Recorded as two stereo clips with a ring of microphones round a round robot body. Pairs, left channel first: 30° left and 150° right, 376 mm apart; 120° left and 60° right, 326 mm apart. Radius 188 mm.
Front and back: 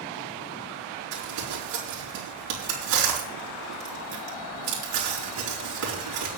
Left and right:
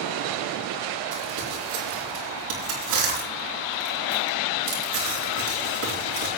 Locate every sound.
1.1 s crumpling: 105° right, 5 m